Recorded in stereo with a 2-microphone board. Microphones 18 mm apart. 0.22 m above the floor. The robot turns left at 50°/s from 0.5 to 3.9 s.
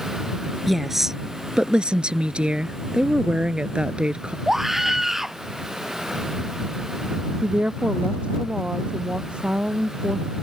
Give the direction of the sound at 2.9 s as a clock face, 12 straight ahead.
2 o'clock.